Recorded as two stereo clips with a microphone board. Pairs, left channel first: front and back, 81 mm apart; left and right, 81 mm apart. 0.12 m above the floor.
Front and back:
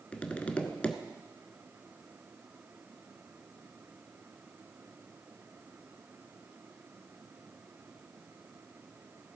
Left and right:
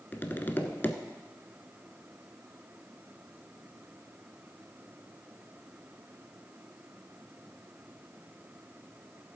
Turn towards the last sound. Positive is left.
turn(degrees=55)